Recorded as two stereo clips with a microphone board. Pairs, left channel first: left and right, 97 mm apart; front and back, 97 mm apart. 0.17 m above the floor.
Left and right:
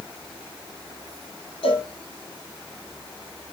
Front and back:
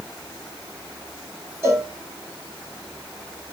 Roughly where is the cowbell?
Behind left.